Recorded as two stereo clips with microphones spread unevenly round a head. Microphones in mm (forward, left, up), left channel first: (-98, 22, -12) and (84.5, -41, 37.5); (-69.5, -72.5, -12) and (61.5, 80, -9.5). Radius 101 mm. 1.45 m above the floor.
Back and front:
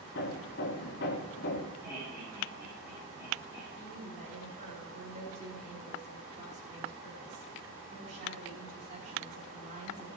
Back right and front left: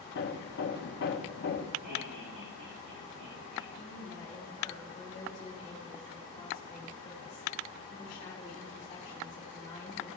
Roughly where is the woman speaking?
Ahead right.